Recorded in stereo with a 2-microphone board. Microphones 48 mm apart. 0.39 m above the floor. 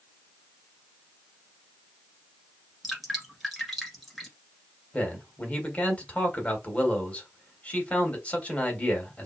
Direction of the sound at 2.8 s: Centre (ahead or behind).